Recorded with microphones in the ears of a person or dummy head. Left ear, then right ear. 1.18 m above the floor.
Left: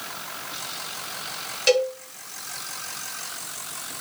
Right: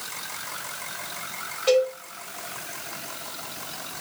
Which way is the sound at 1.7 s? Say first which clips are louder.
Even; 55° left (ahead or behind).